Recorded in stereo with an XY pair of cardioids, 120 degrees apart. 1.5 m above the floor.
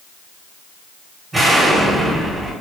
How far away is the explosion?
About 0.8 m.